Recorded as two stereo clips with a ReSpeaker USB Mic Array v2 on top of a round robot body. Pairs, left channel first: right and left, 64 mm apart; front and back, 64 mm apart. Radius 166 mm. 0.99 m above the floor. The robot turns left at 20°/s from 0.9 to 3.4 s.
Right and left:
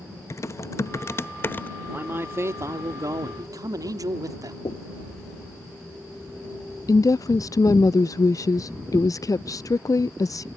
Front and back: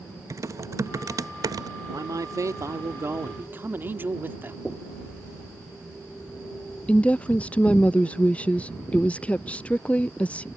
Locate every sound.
0.3 s typing on a keyboard: 135° right; by 1.7 s 155° right
1.9 s a man speaking: 150° left; by 4.5 s 120° left
4.7 s knocking: 85° right
6.9 s a woman speaking: 70° right